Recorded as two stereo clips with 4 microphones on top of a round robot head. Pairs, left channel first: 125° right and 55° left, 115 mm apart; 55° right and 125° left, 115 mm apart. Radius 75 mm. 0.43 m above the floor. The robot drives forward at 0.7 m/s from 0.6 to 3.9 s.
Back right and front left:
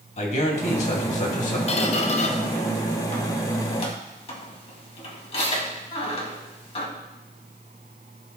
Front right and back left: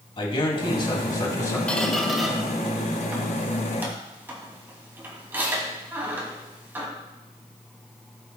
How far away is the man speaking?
About 2.5 m.